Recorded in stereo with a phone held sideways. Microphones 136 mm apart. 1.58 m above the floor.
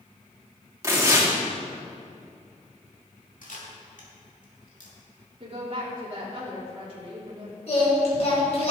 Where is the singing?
50° left (ahead or behind), 4.5 m.